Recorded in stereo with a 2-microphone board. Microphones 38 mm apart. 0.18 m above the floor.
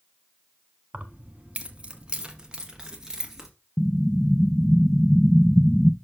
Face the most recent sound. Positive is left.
turn(degrees=25)  # may be behind; listen again after turning